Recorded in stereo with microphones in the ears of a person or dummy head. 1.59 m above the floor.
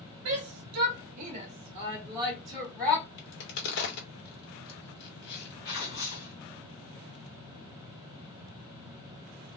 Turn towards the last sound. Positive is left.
turn(degrees=65)  # may be behind; listen again after turning